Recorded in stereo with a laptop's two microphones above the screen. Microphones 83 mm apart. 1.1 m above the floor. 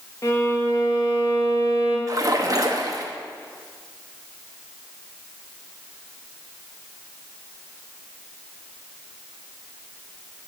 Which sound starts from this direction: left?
A violin, at 0.2 s.